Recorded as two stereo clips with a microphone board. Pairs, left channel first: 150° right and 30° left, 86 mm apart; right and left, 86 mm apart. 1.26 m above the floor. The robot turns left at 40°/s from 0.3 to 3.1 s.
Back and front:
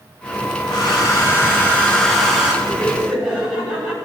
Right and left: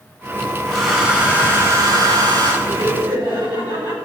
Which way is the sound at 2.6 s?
130° left.